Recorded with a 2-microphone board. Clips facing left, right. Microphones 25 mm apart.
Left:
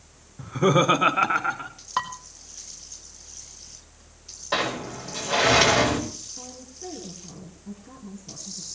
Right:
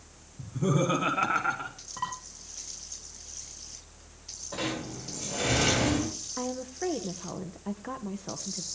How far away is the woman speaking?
About 1.6 m.